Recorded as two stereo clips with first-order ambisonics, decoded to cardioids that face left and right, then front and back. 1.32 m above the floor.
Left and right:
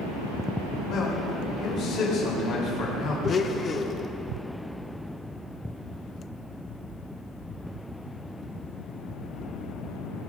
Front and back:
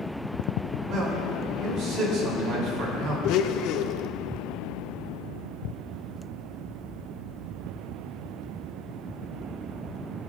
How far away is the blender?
About 0.5 m.